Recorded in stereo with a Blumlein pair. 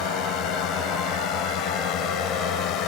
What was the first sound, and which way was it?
A drone, 35° left.